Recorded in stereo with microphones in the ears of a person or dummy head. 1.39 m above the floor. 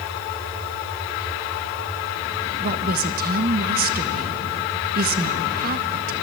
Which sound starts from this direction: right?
A woman speaking, at 2.6 s.